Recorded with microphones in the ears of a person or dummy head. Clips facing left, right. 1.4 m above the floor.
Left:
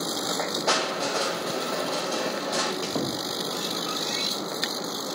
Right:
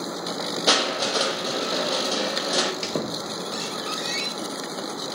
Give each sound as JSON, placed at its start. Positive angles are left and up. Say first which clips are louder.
{"t": 0.7, "sound": "crushing", "louder": "right 4 dB", "side_deg": -40, "distance_m": 1.2}
{"t": 2.8, "sound": "a squeak", "louder": "even", "side_deg": -25, "distance_m": 1.1}